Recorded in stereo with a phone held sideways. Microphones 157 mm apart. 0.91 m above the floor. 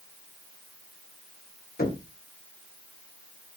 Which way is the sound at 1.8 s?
65° left (ahead or behind).